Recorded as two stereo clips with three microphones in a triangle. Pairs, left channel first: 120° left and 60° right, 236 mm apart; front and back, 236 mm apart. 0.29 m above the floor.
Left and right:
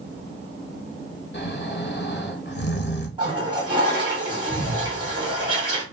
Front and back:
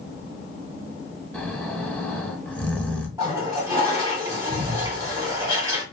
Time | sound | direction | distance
1.3 | snoring | 85° left | 0.7 m
3.2 | a toilet flushing | 115° right | 1.7 m